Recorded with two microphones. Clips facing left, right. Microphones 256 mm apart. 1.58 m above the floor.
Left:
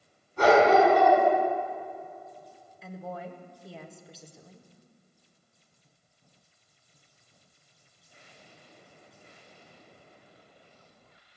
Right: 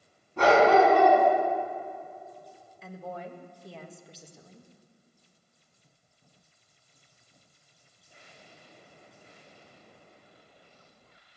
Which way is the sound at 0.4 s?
80° right.